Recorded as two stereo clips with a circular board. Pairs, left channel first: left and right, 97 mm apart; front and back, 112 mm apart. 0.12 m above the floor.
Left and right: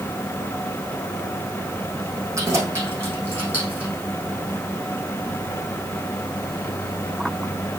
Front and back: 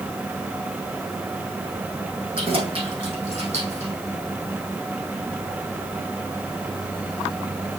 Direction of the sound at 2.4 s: 150° right.